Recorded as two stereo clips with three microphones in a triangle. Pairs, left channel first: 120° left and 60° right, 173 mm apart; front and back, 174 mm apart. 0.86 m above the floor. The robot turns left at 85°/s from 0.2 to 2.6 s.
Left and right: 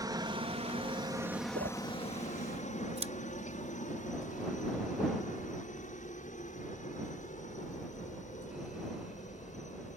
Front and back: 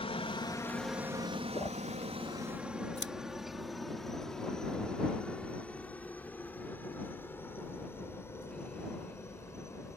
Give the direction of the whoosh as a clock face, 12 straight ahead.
2 o'clock.